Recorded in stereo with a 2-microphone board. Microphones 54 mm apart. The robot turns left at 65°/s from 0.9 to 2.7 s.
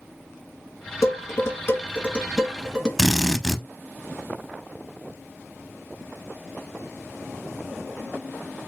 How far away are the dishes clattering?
About 1.8 m.